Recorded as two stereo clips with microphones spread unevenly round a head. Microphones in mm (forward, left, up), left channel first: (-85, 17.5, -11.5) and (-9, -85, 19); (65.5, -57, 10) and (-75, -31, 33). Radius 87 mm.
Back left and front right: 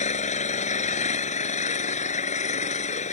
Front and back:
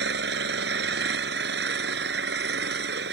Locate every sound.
0.0 s an engine running: 155° left